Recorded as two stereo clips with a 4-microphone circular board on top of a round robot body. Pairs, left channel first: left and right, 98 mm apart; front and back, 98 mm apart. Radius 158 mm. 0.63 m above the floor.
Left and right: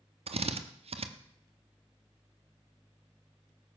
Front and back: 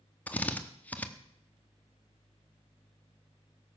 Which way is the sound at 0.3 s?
75° right.